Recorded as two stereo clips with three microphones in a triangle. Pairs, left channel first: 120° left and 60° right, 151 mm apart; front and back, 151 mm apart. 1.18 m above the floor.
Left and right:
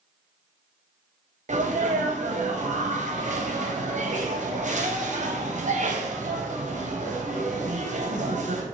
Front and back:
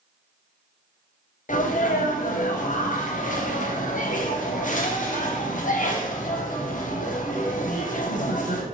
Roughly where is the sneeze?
Ahead right.